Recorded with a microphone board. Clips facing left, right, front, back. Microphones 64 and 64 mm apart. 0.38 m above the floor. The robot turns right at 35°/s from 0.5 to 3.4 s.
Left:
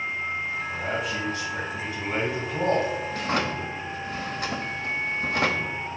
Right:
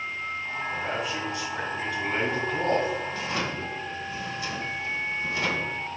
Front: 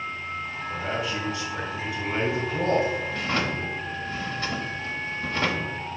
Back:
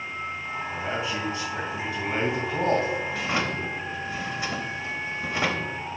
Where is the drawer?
95° left, 1.0 m; by 5.8 s 105° left, 1.0 m.